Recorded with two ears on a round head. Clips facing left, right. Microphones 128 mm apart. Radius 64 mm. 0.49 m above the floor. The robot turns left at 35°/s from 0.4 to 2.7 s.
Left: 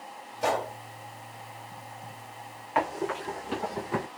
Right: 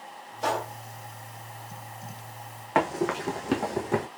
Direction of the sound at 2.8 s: 60° right (ahead or behind).